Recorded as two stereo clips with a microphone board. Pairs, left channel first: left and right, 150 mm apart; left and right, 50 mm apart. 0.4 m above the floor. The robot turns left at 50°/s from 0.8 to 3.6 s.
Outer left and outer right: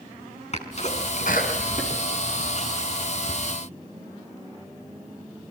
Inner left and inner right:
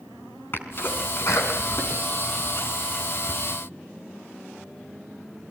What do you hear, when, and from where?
0.5 s a sneeze: 50° left (ahead or behind), 4.5 m; by 3.3 s centre (ahead or behind), 4.5 m